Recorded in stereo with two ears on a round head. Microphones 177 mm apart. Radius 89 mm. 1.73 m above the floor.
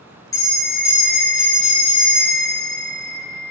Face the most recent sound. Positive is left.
turn(degrees=15)  # may be behind; listen again after turning